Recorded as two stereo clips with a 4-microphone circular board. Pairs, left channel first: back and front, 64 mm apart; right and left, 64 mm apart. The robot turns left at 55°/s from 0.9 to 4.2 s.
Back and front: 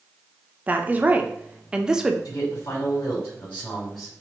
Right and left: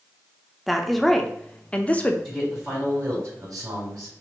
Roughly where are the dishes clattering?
No dishes clattering in this recording.